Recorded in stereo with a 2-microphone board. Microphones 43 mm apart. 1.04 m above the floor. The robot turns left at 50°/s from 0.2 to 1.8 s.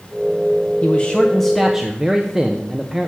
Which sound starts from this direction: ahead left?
A man speaking, at 0.8 s.